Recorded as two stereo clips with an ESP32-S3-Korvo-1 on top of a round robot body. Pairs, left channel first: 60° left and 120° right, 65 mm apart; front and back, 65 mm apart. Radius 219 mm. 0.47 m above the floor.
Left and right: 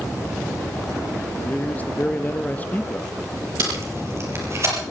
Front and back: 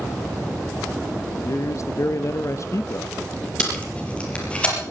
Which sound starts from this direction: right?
Tape being pulled, at 3.6 s.